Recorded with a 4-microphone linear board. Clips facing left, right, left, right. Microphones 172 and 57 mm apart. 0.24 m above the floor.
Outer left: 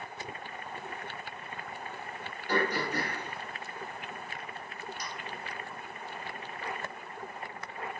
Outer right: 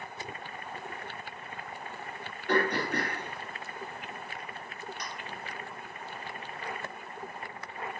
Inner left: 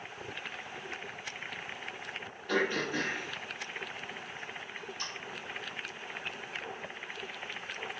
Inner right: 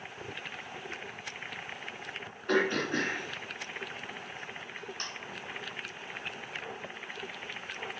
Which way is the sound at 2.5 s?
65° right (ahead or behind).